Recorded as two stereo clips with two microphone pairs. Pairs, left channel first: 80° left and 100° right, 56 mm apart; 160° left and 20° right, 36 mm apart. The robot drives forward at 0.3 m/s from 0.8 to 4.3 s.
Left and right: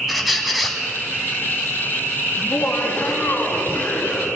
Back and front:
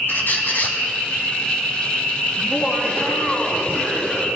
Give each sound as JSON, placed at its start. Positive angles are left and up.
{"t": 0.1, "sound": "a squeak", "azimuth_deg": 170, "distance_m": 1.5}
{"t": 2.4, "sound": "laughter", "azimuth_deg": 120, "distance_m": 2.5}